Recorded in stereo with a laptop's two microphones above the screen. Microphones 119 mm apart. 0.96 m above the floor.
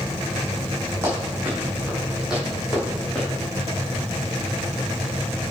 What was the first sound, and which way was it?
Running footsteps, 20° right (ahead or behind).